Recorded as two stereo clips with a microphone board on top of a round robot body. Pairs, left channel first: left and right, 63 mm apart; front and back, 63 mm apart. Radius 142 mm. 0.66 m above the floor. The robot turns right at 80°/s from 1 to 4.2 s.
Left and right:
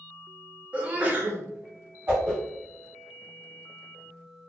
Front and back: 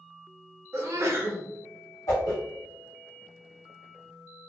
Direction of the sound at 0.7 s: 155° right.